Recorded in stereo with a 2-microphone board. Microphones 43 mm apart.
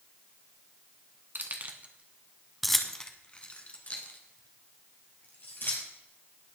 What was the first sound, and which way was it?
Keys jangling, 50° right (ahead or behind).